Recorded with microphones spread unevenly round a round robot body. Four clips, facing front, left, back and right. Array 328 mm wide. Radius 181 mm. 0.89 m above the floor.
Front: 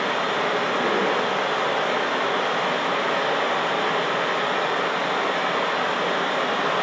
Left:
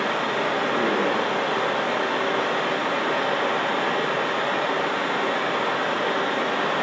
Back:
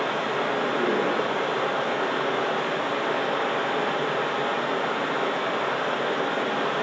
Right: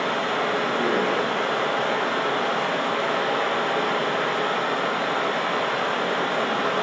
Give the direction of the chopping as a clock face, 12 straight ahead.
I don't hear chopping.